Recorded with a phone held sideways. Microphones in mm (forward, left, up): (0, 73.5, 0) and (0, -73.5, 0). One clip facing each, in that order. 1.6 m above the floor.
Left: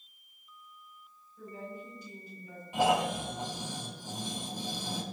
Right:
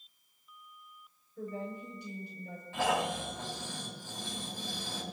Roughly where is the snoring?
Centre.